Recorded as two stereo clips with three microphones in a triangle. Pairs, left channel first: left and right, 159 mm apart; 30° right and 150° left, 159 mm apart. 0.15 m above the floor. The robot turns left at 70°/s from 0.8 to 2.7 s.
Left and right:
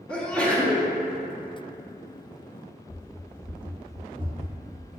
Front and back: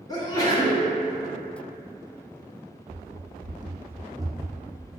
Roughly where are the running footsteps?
Behind left.